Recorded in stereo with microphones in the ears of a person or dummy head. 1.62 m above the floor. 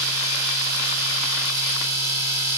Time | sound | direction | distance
0.0 | a machine running | 15° right (ahead or behind) | 7 m